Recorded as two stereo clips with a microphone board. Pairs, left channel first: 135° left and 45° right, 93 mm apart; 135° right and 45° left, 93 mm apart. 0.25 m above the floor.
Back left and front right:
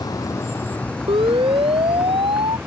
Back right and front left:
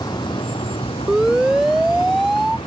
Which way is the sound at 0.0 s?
Straight behind.